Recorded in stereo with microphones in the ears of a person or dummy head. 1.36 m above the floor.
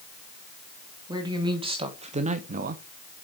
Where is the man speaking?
20° right (ahead or behind), 1.7 m; by 2.8 s 50° right (ahead or behind), 0.7 m.